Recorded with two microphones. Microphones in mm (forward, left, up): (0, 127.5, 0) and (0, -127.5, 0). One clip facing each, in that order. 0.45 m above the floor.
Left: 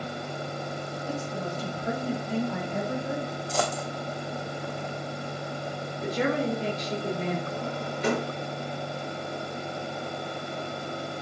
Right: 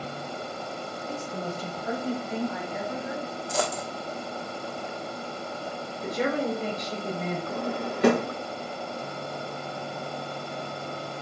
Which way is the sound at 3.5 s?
5° right (ahead or behind).